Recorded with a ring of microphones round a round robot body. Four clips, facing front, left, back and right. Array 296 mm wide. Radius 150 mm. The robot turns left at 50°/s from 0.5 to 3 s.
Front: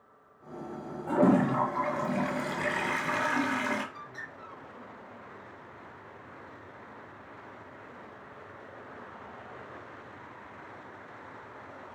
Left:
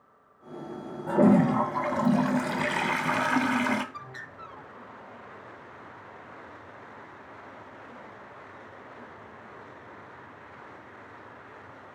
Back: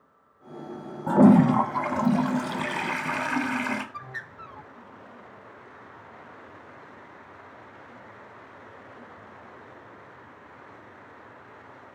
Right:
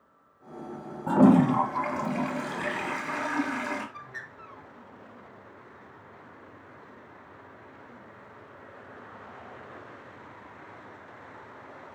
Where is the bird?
165° left, 1.0 m.